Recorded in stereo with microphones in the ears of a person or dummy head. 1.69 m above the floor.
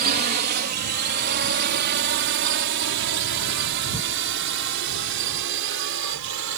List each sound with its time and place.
0.0 s a drone: 50° right (ahead or behind); by 6.6 s 75° right (ahead or behind)